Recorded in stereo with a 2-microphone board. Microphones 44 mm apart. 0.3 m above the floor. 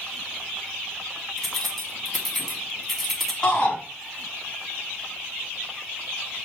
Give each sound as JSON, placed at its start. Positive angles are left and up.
{"t": 1.4, "sound": "keys jangling", "side_deg": 5, "distance_m": 1.5}
{"t": 3.4, "sound": "a shout", "side_deg": 20, "distance_m": 2.5}